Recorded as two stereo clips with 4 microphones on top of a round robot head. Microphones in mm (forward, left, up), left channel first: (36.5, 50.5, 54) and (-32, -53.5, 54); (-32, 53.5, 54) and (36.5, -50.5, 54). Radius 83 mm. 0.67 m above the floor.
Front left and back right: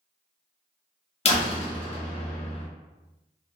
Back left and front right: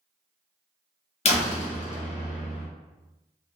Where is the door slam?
95° left, 1.0 m.